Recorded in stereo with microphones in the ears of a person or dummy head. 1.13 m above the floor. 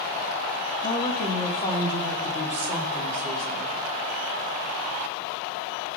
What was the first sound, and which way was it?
A woman speaking, 35° left (ahead or behind).